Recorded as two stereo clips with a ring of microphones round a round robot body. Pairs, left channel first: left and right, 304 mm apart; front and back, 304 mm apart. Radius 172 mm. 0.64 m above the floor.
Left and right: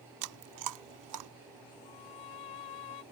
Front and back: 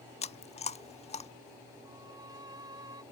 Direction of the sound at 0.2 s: 70° right.